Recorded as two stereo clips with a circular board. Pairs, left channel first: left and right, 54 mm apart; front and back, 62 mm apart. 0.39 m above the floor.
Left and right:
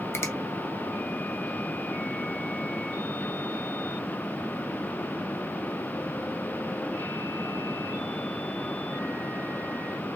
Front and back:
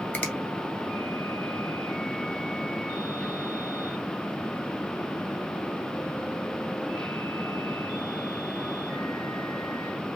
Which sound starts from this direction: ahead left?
A finger snap, at 0.1 s.